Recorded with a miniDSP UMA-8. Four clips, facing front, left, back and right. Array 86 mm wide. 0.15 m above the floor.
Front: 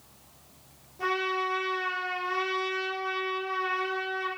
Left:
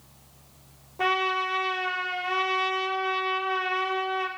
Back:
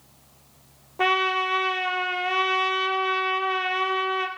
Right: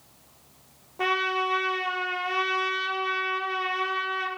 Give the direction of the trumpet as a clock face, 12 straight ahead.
6 o'clock.